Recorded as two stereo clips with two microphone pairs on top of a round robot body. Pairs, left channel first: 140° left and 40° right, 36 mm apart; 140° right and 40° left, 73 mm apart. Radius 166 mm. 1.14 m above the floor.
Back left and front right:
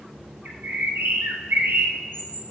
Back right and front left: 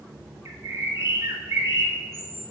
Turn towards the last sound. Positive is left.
turn(degrees=-15)